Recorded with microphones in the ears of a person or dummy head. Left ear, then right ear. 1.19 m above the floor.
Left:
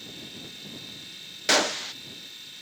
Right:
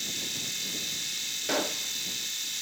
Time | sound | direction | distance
0.0 | a machine running | 30° right (ahead or behind) | ?
1.5 | a gunshot | 45° left (ahead or behind) | ?